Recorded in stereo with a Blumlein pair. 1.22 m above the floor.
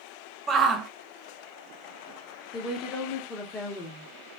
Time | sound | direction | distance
0.5 | a shout | 20° right | 0.5 m
2.5 | a woman speaking | 20° left | 1.1 m